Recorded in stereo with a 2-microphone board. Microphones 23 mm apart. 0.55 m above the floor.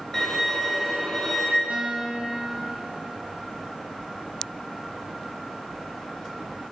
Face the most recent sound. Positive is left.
turn(degrees=-50)  # may be behind; listen again after turning